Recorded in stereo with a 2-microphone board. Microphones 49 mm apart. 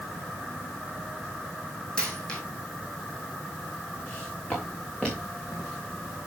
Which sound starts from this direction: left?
Footsteps, at 4.1 s.